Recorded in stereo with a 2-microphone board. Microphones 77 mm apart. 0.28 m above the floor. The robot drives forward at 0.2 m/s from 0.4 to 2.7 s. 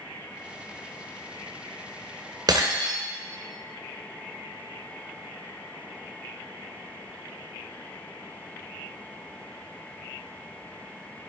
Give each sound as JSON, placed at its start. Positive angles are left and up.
{"t": 2.5, "sound": "breaking glass", "side_deg": -60, "distance_m": 1.8}